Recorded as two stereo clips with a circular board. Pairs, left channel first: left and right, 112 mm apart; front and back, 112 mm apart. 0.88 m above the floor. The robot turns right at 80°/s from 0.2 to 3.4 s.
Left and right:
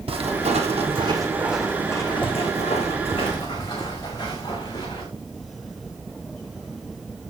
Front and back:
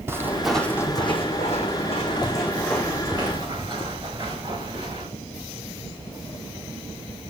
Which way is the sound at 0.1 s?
115° right.